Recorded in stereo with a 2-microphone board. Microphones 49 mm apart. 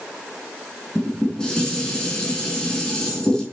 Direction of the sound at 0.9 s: 15° left (ahead or behind).